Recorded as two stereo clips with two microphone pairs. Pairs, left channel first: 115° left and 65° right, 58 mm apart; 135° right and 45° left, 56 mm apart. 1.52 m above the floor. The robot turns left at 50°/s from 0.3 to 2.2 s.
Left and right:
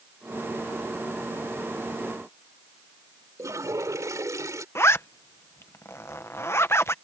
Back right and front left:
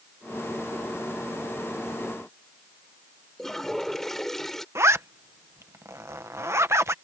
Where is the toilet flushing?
50° right.